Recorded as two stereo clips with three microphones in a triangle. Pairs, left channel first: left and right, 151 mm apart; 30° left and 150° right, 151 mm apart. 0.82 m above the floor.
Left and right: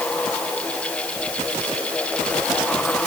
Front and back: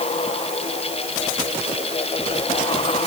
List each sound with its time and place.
Only background noise.